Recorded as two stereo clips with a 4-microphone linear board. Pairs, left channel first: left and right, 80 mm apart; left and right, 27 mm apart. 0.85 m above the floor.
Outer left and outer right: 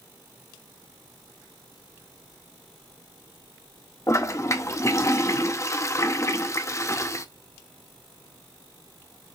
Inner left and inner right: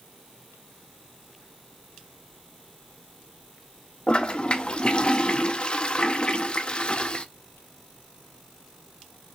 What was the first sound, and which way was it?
A toilet flushing, 35° left (ahead or behind).